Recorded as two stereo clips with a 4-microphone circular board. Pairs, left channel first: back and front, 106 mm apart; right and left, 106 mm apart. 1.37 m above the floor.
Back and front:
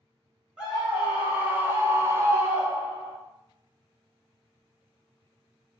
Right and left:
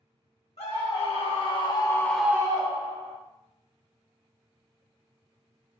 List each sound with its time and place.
0.6 s a scream: 80° right, 1.5 m; by 3.2 s 80° left, 1.0 m